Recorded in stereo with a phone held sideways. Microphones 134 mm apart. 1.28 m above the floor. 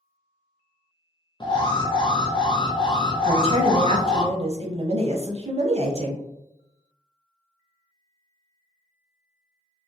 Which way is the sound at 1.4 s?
35° left (ahead or behind).